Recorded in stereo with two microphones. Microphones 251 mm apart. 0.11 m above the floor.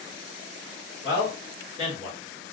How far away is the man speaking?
About 1.4 m.